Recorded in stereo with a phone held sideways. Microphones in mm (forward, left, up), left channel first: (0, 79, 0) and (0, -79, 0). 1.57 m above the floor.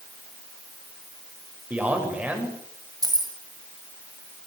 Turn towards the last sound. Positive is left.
turn(degrees=-25)  # may be behind; listen again after turning